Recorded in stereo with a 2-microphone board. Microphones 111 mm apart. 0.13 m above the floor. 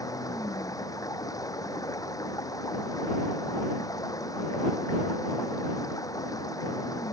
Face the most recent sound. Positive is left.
turn(degrees=30)  # may be behind; listen again after turning